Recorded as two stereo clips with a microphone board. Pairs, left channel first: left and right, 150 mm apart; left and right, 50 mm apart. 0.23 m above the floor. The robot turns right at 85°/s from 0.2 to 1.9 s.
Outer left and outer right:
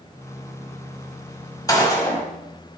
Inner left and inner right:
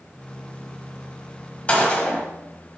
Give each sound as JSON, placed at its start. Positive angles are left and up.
{"t": 1.7, "sound": "a gunshot", "side_deg": 25, "distance_m": 1.5}